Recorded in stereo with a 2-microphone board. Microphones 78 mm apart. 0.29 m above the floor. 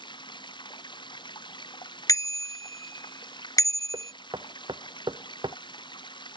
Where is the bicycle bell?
45° left (ahead or behind).